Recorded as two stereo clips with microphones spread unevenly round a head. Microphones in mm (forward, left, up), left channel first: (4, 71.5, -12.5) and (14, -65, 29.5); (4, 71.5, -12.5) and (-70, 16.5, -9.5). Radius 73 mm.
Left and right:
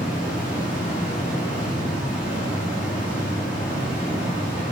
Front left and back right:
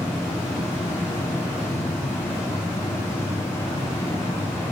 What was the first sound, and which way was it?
A fan, straight ahead.